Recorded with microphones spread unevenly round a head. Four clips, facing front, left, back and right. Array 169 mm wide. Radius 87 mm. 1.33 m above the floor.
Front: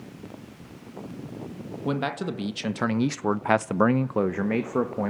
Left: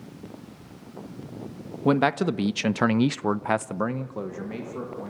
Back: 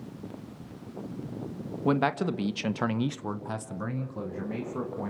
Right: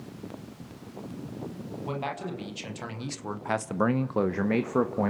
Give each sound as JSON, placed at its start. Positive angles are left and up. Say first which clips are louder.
{"t": 1.9, "sound": "a man speaking", "louder": "left 13 dB, back 2 dB", "azimuth_deg": 85, "distance_m": 1.8}